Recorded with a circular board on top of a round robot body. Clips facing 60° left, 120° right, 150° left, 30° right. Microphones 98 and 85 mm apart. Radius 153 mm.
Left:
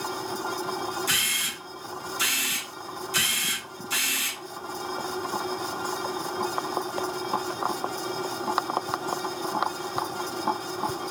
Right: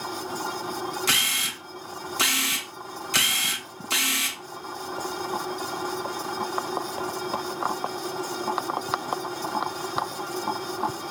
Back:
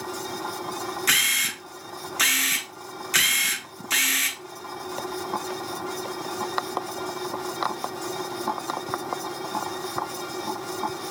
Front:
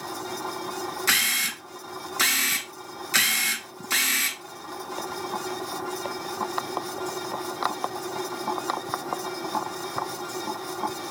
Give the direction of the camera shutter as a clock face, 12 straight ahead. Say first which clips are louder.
Right 2 dB, even; 4 o'clock.